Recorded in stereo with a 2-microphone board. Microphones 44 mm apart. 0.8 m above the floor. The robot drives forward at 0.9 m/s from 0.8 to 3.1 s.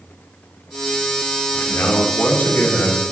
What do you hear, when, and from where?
1.5 s a man speaking: 70° left (ahead or behind), 2 m; by 3.0 s 45° left (ahead or behind), 2.5 m